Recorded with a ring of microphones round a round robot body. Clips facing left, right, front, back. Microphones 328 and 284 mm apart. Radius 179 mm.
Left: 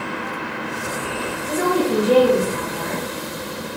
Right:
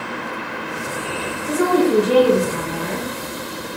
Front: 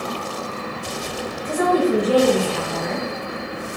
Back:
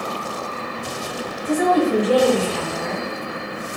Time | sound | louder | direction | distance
1.4 | a woman speaking | right 4 dB, back 1 dB | 95° right | 3 m